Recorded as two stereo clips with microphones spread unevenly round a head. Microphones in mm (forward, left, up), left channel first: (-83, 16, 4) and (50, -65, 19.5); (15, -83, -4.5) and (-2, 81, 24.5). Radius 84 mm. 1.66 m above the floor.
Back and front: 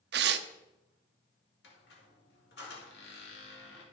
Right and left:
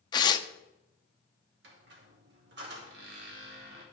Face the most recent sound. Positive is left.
turn(degrees=115)